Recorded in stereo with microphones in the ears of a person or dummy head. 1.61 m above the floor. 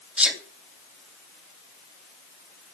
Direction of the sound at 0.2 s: 5° right (ahead or behind).